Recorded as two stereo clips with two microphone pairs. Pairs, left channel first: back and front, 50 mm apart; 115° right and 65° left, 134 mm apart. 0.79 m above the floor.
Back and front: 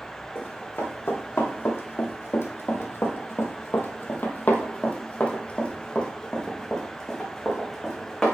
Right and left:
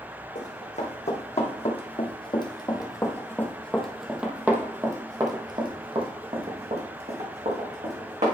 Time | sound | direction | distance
0.3 | running footsteps | 140° right | 2 m